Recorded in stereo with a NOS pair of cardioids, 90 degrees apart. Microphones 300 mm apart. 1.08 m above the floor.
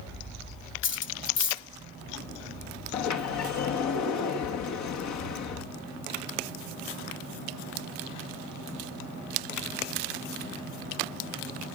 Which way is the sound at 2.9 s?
70° left.